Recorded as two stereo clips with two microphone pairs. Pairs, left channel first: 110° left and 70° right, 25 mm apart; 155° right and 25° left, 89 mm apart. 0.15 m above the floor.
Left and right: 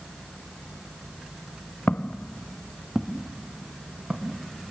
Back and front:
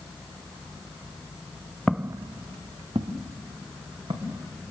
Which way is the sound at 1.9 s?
115° left.